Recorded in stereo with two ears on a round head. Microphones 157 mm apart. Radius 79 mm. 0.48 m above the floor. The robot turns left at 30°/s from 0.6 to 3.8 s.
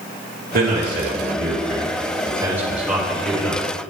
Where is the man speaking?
55° right (ahead or behind), 1.9 m; by 3.6 s 15° left (ahead or behind), 1.9 m.